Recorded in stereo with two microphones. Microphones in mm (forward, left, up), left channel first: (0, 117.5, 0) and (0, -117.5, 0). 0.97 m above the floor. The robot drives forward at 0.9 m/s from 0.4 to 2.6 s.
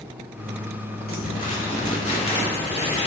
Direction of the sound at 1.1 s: 40° left (ahead or behind).